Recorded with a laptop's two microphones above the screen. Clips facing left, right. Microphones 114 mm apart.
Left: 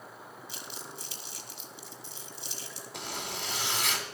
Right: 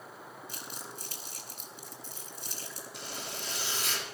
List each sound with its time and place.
0.5 s crumpling: 50° right (ahead or behind), 3.5 m
2.9 s a zipper: 80° left, 3 m